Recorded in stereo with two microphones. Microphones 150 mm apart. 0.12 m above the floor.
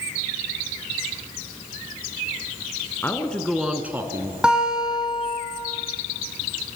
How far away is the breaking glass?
No breaking glass in this recording.